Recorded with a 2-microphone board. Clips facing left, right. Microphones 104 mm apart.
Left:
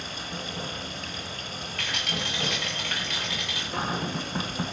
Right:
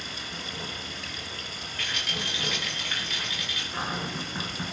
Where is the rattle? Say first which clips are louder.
Left 2 dB; 85° left, 7.5 m.